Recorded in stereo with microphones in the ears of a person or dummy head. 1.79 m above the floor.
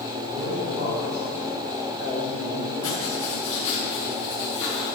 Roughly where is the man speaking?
Right.